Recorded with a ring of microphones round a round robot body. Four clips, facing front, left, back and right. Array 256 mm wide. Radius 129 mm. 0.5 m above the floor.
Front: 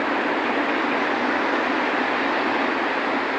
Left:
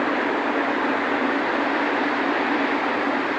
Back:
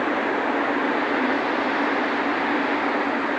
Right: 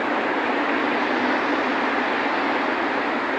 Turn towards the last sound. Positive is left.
No sound to turn to.